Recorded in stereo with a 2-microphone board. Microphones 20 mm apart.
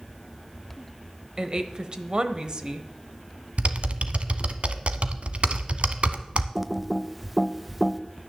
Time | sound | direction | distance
1.4 | a woman speaking | 40° right (ahead or behind) | 1.2 m
3.6 | typing on a keyboard | 70° right (ahead or behind) | 0.9 m
6.5 | typing on a keyboard | 5° right (ahead or behind) | 0.6 m